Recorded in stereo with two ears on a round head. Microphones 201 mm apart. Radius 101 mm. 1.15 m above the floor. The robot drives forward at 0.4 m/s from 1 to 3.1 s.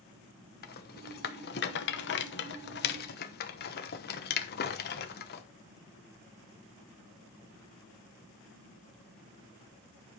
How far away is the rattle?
About 1.1 m.